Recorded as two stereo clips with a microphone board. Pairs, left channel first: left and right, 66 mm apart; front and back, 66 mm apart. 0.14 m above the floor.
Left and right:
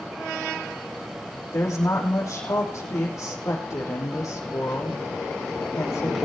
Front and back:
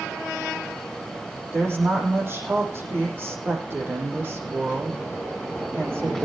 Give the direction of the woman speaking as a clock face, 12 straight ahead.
8 o'clock.